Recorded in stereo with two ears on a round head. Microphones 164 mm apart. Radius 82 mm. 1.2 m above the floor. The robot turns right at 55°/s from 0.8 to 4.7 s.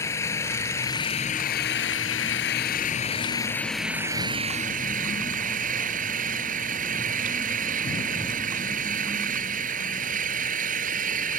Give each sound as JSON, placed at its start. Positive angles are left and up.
{"t": 0.0, "sound": "an engine running", "azimuth_deg": 15}